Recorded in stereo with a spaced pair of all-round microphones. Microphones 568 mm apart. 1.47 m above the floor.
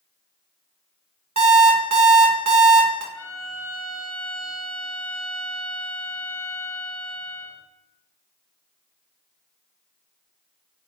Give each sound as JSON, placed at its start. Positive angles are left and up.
{"t": 1.4, "sound": "an alarm clock", "side_deg": -35, "distance_m": 0.7}
{"t": 3.1, "sound": "a violin", "side_deg": 50, "distance_m": 1.4}